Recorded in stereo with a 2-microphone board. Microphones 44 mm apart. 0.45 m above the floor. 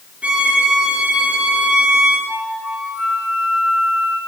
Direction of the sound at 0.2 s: 25° right (ahead or behind).